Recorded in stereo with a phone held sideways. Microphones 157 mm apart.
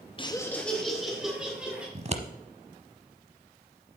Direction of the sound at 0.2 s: 30° left (ahead or behind).